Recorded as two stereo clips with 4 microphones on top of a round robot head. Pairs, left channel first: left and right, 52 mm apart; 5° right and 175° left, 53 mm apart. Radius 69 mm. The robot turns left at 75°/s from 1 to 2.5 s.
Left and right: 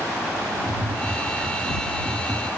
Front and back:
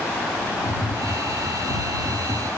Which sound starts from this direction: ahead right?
Tapping, at 0.6 s.